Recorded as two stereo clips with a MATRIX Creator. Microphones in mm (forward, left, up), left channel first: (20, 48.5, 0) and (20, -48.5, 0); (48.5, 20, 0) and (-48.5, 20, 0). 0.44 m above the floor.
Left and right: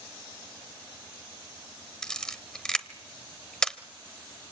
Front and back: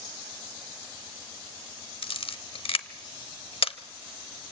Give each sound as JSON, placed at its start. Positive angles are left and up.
{"t": 2.0, "sound": "a camera shutter", "azimuth_deg": 5, "distance_m": 0.9}